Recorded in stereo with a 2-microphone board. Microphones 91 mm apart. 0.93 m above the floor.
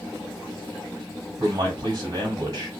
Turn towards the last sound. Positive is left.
turn(degrees=-45)  # may be behind; listen again after turning